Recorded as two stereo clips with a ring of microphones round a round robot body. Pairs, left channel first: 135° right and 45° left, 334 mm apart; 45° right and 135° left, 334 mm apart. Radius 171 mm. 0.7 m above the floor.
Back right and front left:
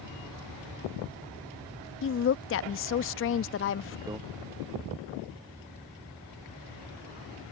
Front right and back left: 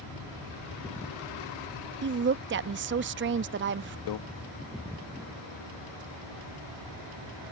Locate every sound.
2.0 s a woman speaking: 175° right
4.1 s a microwave: 35° right